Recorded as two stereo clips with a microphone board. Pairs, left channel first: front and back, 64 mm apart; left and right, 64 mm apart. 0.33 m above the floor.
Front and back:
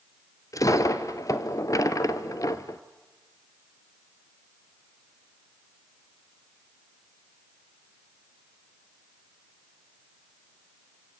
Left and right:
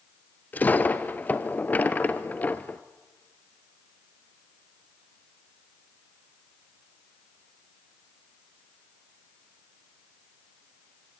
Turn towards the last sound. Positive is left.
turn(degrees=25)